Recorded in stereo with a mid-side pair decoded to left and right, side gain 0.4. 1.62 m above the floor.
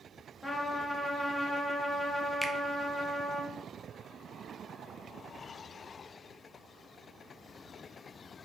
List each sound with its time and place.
0.4 s a trumpet: 20° left, 1.1 m
2.4 s a finger snap: 15° left, 0.6 m